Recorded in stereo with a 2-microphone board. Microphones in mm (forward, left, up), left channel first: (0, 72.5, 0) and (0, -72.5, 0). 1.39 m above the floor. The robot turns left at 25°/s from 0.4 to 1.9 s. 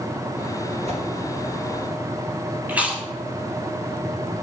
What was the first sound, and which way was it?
A whoosh, 50° right (ahead or behind).